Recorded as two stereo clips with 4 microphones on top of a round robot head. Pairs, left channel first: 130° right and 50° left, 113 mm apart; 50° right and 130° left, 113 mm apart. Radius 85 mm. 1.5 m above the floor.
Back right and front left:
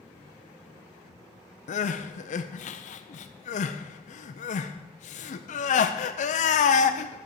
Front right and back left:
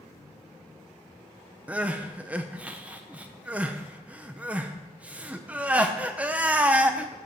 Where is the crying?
150° right, 0.6 m.